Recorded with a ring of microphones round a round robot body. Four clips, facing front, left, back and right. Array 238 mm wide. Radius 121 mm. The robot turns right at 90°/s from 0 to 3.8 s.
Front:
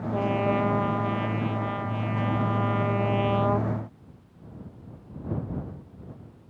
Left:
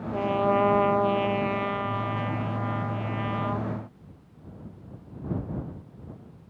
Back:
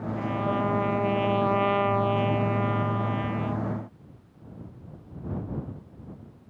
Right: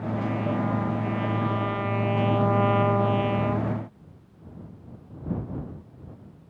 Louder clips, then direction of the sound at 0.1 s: Left 6 dB, front 3 dB; 35° left.